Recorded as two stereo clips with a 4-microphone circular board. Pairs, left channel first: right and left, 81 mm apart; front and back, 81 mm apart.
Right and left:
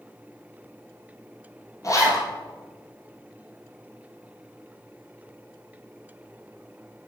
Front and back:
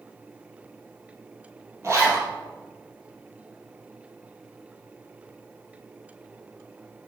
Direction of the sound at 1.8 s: 130° right.